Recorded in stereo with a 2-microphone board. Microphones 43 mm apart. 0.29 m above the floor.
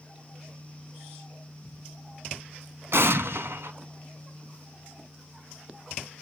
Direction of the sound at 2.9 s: 70° right (ahead or behind).